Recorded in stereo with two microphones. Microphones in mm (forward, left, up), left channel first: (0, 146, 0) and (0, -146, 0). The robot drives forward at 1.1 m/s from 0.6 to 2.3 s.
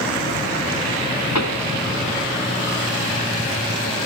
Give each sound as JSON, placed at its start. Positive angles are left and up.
{"t": 1.4, "sound": "a pop", "side_deg": 65}